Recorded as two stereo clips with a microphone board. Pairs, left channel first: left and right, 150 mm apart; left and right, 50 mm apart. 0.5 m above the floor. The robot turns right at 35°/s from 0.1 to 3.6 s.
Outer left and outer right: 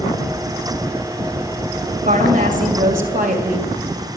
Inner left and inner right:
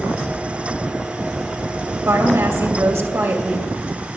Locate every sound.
2.0 s a woman speaking: 110° right, 2.5 m; by 4.1 s 55° right, 2.5 m